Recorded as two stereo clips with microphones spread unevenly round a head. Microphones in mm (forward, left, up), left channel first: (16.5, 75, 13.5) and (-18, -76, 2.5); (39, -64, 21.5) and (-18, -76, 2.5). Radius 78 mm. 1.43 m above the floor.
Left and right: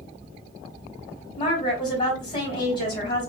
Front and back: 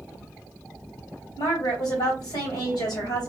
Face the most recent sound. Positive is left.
turn(degrees=15)